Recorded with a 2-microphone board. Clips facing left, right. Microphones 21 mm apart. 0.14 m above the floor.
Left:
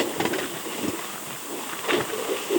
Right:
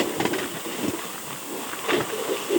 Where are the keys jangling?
I don't hear keys jangling.